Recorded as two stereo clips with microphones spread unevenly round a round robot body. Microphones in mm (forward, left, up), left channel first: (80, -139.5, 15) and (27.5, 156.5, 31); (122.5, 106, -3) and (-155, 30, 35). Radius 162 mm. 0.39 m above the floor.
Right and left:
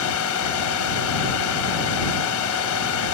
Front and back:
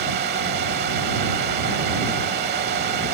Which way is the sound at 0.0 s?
105° right.